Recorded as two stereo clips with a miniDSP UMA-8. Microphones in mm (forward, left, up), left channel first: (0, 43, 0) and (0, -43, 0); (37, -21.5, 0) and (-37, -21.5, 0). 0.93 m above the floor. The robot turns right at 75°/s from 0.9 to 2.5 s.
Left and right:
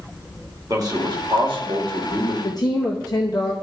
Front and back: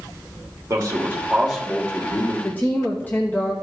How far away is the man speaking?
About 2 m.